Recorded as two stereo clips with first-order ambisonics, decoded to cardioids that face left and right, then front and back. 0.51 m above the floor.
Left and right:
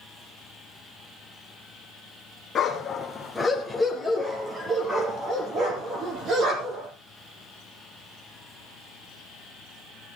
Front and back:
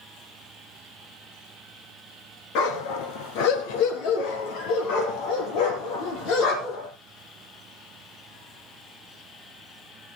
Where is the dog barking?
20° left, 2 m; by 6.9 s 40° right, 5 m.